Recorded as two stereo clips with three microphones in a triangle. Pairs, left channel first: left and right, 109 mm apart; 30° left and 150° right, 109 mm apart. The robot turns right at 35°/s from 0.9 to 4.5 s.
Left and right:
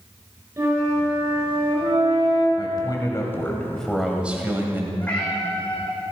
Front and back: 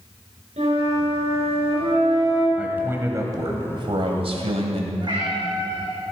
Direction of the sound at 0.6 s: 155° right.